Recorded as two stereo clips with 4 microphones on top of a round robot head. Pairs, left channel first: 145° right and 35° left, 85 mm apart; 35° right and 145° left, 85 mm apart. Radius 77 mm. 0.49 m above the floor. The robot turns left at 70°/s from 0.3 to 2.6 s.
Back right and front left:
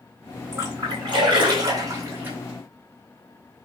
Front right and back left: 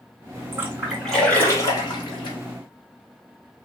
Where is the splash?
90° left, 2.5 m; by 2.4 s 40° right, 2.5 m.